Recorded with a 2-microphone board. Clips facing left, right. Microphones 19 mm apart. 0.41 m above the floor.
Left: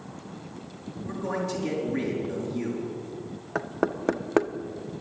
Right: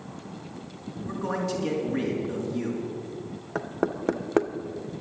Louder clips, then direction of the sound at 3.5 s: Left 1 dB; 15° left (ahead or behind).